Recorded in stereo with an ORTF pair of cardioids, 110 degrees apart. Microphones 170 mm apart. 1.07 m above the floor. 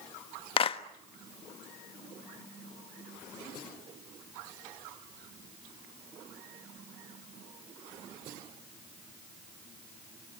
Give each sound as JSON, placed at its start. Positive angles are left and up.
{"t": 0.6, "sound": "a clap", "azimuth_deg": 35, "distance_m": 1.4}